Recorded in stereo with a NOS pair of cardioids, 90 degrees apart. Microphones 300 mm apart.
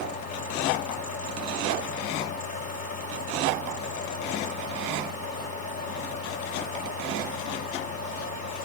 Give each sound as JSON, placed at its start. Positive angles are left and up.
{"t": 0.0, "sound": "a fan", "azimuth_deg": 60, "distance_m": 6.0}